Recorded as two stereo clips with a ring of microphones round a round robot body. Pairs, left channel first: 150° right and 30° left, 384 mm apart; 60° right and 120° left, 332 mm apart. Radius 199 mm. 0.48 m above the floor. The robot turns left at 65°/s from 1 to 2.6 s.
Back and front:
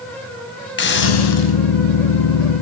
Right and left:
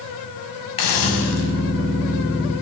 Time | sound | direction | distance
0.8 | a hiss | 90° right | 4.5 m